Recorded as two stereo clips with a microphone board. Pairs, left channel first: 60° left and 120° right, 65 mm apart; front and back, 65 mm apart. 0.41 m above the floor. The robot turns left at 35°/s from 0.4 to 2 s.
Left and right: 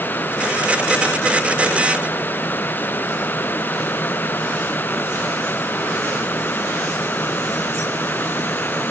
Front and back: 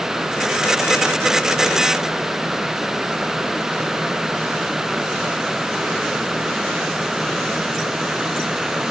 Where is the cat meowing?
I don't hear a cat meowing.